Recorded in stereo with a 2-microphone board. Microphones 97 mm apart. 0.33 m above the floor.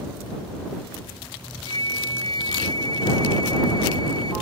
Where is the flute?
65° right (ahead or behind).